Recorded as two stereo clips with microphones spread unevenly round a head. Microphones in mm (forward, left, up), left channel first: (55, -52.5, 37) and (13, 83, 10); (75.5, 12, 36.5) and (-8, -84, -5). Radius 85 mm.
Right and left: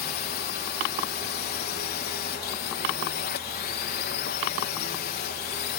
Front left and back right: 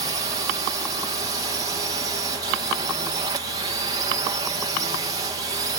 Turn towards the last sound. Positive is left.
turn(degrees=-85)